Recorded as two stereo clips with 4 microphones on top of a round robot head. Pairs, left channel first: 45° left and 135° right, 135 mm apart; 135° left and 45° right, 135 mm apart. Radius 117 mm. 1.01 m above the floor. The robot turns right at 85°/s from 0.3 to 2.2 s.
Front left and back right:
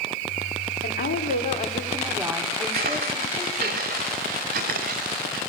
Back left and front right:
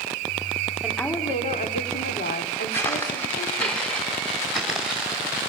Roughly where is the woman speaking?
Ahead left.